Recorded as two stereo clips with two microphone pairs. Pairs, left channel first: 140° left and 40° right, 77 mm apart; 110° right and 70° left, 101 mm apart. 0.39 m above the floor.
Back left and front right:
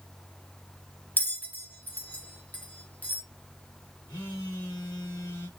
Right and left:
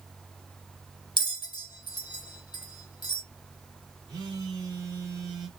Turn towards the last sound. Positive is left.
turn(degrees=90)